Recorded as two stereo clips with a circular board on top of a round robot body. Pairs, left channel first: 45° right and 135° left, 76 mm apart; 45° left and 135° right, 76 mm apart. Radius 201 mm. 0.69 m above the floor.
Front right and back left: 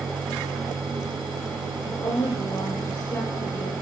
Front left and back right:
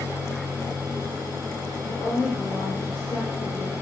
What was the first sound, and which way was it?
A woman speaking, 45° right.